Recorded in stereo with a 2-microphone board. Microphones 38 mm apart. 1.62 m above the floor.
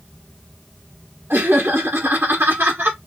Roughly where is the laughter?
Right.